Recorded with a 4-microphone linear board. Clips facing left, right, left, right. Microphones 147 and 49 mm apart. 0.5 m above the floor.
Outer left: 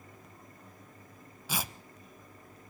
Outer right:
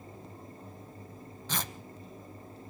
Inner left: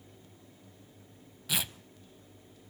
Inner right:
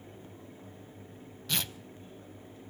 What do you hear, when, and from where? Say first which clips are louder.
1.5 s tearing paper: even, even; 10° left (ahead or behind), 0.6 m